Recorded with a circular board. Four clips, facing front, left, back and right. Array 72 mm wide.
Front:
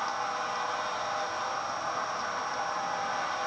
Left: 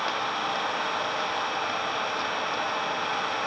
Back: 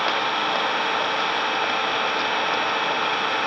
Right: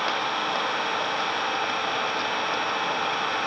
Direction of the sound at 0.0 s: 175° right.